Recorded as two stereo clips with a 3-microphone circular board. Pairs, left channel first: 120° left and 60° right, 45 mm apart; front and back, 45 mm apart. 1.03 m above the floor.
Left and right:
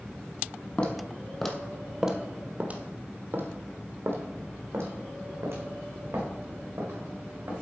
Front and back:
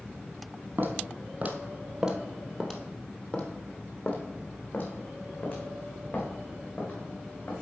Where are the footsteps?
170° left, 1.5 m; by 7.5 s 35° right, 4.5 m.